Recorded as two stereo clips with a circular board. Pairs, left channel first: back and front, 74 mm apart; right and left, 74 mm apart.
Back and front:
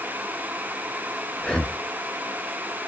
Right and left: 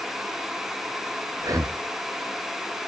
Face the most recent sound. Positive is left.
turn(degrees=100)